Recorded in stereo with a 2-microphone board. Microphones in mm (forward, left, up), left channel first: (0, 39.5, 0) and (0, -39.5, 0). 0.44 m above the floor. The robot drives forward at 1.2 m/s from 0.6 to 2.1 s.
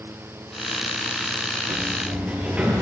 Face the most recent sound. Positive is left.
turn(degrees=-20)  # may be behind; listen again after turning